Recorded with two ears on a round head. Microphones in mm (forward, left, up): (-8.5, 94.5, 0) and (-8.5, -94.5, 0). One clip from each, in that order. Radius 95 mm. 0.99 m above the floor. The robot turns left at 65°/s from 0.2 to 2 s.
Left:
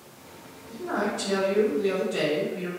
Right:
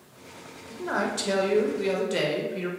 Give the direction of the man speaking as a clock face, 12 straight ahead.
1 o'clock.